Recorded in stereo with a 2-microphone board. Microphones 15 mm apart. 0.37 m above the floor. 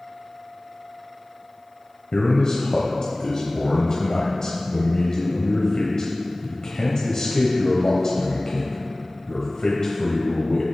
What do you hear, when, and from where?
2.1 s a man speaking: 55° left (ahead or behind), 1.4 m